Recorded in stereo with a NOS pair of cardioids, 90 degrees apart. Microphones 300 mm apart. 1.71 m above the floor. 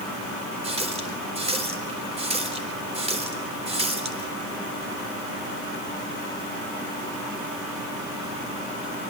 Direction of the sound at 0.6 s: 20° right.